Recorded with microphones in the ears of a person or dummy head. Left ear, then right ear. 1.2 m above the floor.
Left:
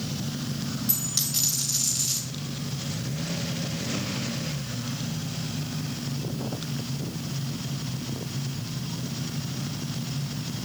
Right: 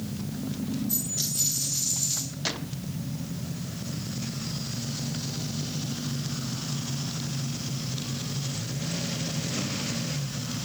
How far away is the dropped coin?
About 3 m.